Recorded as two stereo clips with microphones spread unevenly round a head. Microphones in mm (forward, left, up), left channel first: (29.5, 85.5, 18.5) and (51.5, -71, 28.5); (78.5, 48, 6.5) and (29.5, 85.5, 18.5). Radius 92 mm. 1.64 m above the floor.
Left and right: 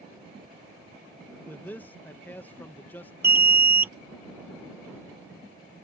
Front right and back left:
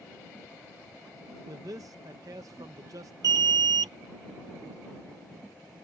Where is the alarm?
160° right.